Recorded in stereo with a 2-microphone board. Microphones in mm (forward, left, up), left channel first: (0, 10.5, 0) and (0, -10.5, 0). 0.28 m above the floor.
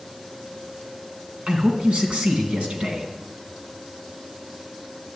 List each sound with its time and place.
1.5 s a man speaking: 60° right (ahead or behind), 3 m